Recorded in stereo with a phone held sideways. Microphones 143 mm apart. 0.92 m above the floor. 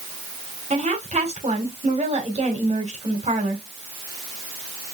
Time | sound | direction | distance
0.7 | a woman speaking | 50° right (ahead or behind) | 2.5 m